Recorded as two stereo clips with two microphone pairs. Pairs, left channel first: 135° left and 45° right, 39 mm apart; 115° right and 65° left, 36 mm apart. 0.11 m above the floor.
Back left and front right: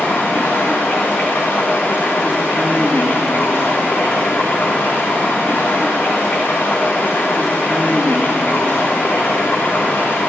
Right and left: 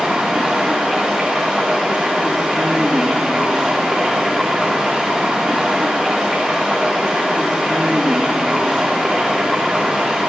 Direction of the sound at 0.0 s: 155° left.